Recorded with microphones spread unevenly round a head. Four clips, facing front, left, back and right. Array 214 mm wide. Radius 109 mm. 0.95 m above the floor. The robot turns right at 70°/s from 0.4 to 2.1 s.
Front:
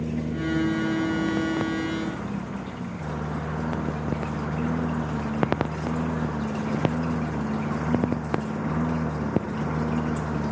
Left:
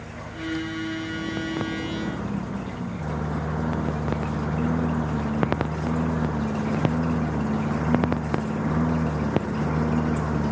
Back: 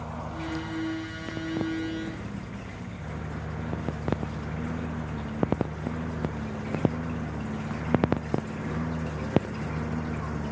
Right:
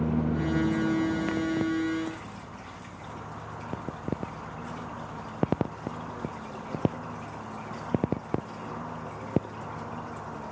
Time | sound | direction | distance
0.0 | a lawn mower | 65° right | ?